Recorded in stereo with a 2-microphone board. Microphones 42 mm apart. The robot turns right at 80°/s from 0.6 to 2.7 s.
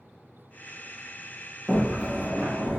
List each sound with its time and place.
1.7 s a sliding door: 175° left, 1.1 m; by 2.8 s 100° right, 1.1 m